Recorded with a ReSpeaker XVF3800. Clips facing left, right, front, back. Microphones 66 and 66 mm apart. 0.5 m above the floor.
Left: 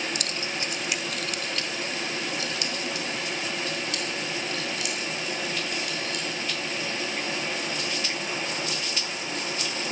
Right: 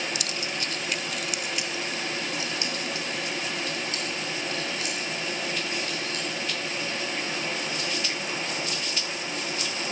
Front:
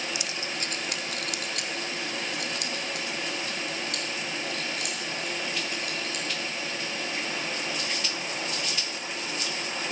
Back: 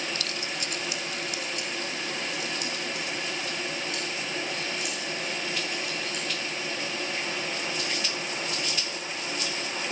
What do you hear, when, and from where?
0.1 s keys jangling: 75° left, 0.6 m; by 6.6 s 35° right, 5 m